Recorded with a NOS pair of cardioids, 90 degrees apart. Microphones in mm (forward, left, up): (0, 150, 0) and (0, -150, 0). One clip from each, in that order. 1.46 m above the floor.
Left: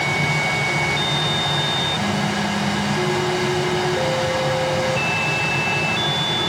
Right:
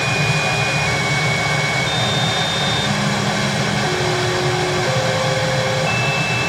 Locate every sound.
0.0 s a machine running: 40° right, 1.3 m